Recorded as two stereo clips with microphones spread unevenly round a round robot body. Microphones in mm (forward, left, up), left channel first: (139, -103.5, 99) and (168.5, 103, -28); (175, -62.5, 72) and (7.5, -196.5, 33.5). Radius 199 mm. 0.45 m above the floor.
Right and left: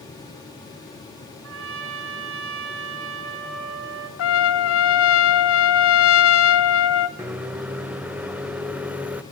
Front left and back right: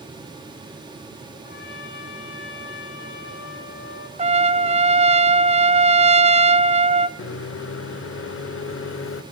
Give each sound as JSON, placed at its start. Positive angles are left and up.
{"t": 1.4, "sound": "a trumpet", "azimuth_deg": 100, "distance_m": 1.9}
{"t": 4.2, "sound": "a trumpet", "azimuth_deg": -140, "distance_m": 0.9}
{"t": 7.2, "sound": "a microwave", "azimuth_deg": 15, "distance_m": 1.3}